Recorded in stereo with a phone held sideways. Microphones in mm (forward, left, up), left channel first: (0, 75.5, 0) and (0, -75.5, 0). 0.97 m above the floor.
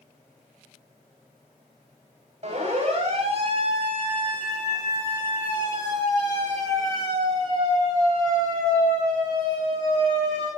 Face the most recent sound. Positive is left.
turn(degrees=-25)  # may be behind; listen again after turning